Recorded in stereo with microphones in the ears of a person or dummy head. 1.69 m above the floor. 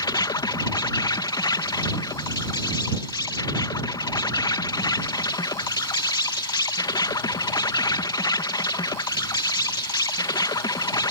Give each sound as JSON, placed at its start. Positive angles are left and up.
{"t": 0.0, "sound": "an insect", "side_deg": 25}